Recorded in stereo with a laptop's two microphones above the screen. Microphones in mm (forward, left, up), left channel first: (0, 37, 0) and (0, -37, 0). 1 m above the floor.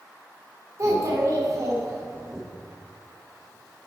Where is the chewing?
I don't hear chewing.